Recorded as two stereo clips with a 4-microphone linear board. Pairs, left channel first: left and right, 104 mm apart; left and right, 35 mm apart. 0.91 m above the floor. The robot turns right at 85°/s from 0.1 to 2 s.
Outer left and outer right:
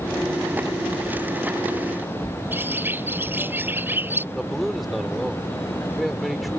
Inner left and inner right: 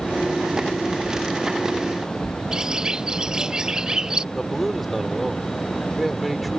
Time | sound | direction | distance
2.5 | a bird | 20° right (ahead or behind) | ?
4.3 | a man speaking | centre (ahead or behind) | ?